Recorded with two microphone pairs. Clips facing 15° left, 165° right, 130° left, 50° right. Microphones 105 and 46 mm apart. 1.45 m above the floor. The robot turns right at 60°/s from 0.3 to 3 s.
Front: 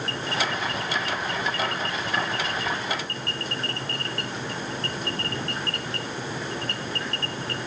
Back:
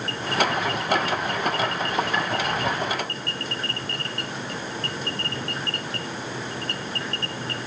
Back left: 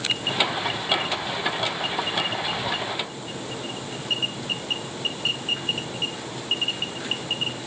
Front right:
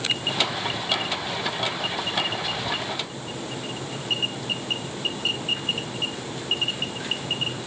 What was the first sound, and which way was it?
Only background noise.